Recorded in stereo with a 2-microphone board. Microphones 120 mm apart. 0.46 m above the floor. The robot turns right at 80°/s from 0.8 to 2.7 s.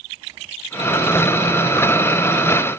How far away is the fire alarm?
No fire alarm in this recording.